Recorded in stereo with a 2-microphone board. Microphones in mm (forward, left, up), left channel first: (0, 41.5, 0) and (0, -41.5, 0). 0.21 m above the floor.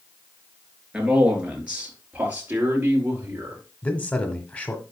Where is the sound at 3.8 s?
20° left (ahead or behind), 1.1 m.